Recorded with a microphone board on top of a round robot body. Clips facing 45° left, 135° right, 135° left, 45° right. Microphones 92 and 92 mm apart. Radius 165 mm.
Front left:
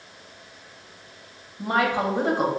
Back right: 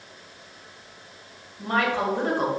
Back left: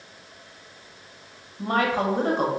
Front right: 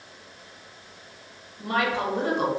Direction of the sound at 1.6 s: 120° left.